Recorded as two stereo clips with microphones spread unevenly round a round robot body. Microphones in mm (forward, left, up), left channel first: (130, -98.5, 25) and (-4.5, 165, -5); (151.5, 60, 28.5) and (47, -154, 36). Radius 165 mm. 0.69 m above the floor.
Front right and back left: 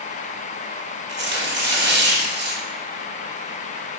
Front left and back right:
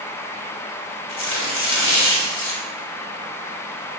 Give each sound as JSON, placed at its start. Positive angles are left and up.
{"t": 1.1, "sound": "tearing paper", "azimuth_deg": 60, "distance_m": 2.0}